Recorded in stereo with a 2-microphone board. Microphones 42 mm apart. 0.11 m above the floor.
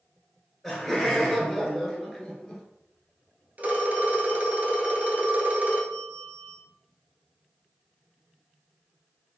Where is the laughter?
5° left (ahead or behind), 1.3 m.